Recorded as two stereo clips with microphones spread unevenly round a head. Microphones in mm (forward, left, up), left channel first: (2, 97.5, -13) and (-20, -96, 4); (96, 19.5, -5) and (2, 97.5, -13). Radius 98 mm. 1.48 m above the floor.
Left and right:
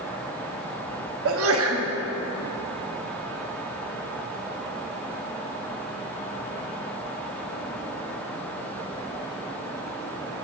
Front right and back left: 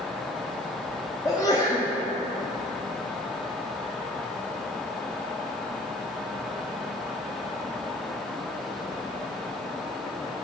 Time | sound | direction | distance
1.2 | a sneeze | 115° right | 0.8 m